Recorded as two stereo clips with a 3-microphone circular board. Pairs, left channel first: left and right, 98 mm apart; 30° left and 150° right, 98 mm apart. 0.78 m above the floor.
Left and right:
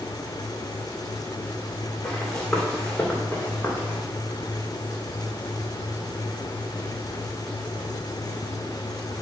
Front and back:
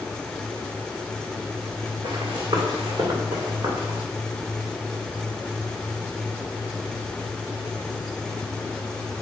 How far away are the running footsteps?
About 3.5 m.